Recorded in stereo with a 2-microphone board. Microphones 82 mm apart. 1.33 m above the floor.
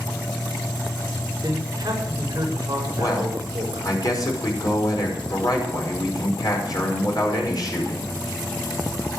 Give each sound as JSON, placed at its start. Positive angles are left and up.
{"t": 1.4, "sound": "a man speaking", "side_deg": -50, "distance_m": 6.0}
{"t": 3.0, "sound": "a man speaking", "side_deg": 50, "distance_m": 5.5}